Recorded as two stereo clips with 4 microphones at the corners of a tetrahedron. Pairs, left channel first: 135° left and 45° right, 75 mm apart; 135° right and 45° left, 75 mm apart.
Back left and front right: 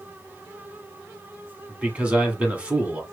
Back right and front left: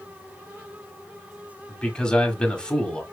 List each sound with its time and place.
1.7 s a man speaking: 80° right, 1.6 m